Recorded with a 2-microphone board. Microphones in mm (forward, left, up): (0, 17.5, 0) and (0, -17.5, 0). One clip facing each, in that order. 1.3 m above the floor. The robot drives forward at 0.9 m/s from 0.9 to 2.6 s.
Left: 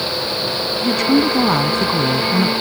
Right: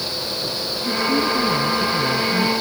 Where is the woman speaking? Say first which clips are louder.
Left 4 dB; 75° left (ahead or behind); by 2.5 s 65° left (ahead or behind).